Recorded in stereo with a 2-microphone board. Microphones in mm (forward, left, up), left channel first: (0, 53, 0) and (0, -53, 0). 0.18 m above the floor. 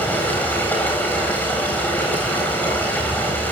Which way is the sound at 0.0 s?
15° left (ahead or behind).